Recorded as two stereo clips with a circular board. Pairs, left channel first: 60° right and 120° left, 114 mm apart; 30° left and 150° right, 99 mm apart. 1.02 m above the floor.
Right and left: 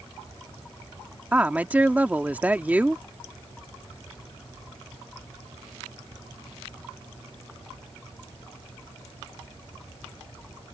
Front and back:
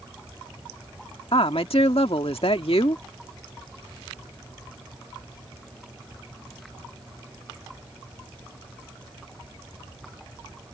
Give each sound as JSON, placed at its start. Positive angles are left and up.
{"t": 1.3, "sound": "a woman speaking", "azimuth_deg": 45}